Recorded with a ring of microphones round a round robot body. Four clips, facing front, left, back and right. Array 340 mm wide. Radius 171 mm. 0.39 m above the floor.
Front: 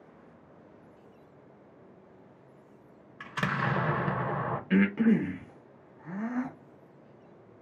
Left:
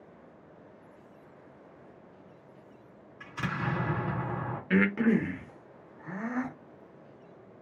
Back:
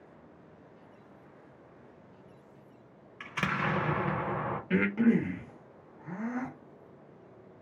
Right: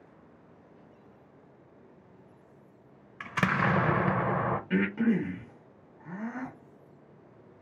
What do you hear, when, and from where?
3.2 s an explosion: 80° right, 0.5 m
4.7 s breathing: 85° left, 0.9 m